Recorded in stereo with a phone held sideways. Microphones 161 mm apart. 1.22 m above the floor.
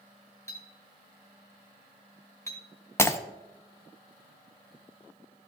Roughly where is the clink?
Centre.